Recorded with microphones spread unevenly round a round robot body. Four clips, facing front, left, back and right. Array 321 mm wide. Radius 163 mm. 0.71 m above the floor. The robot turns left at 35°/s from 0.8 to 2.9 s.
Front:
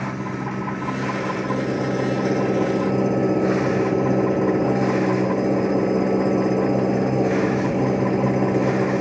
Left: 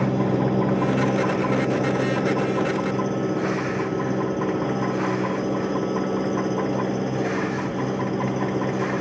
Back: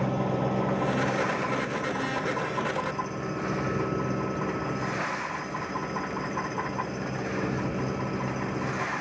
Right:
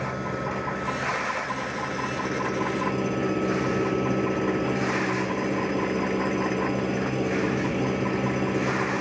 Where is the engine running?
85° left; by 9.0 s 10° left.